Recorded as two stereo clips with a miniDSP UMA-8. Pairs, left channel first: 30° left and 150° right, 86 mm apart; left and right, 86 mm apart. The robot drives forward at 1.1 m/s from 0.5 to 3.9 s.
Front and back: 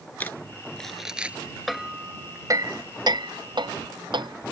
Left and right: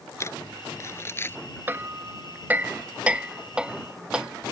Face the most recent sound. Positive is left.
turn(degrees=-170)